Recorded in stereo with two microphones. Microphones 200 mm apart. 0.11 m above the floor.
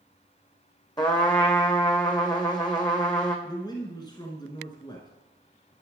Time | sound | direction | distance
1.0 | a trumpet | 20° left (ahead or behind) | 1.3 m
3.5 | a man speaking | 20° left (ahead or behind) | 1.1 m